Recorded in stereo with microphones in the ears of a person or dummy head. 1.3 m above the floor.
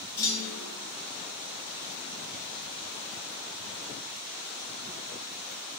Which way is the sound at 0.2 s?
20° left (ahead or behind).